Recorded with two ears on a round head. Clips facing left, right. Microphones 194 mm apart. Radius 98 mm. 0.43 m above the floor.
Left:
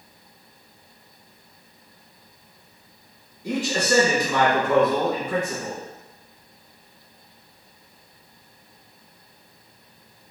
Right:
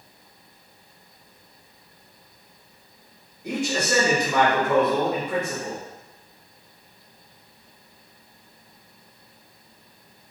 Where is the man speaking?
10° right (ahead or behind), 1.8 m.